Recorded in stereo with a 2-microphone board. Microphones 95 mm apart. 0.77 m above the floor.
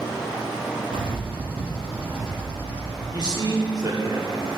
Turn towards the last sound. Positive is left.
turn(degrees=-45)  # may be behind; listen again after turning